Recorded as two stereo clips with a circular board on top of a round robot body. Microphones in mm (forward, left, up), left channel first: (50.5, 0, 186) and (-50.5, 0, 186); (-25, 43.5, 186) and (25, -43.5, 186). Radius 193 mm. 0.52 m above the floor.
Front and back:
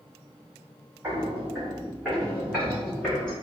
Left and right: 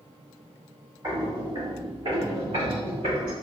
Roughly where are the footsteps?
Right.